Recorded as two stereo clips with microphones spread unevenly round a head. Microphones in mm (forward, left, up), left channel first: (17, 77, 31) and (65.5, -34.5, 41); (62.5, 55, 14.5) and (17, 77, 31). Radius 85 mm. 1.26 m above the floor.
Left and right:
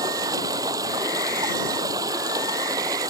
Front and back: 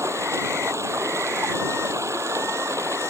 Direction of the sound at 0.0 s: 135° right.